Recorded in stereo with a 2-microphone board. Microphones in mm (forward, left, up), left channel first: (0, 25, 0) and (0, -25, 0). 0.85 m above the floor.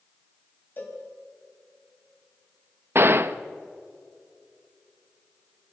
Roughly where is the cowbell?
Left.